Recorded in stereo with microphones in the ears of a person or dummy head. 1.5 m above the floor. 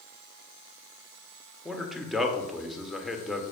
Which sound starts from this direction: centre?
A man speaking, at 1.6 s.